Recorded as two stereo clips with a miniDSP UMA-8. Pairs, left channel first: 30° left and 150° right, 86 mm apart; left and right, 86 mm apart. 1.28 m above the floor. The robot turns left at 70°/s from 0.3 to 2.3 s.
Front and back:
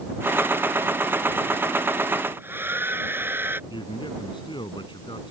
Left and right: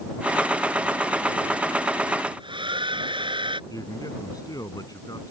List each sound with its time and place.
2.3 s a hair dryer: 85° right
3.7 s a man speaking: 50° left